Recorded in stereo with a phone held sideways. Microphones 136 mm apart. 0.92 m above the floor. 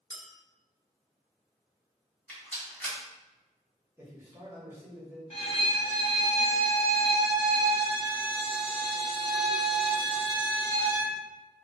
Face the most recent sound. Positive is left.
turn(degrees=50)  # may be behind; listen again after turning